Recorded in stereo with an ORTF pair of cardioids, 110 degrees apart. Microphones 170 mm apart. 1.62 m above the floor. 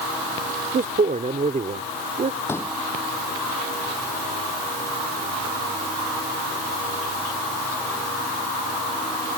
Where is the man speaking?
55° right.